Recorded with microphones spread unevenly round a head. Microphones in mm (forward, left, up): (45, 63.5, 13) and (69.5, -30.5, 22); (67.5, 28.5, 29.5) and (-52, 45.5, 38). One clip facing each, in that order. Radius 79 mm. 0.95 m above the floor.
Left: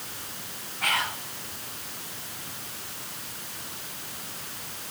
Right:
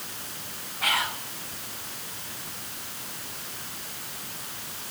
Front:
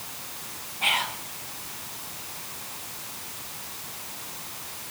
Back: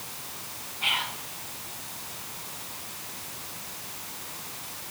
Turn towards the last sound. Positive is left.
turn(degrees=15)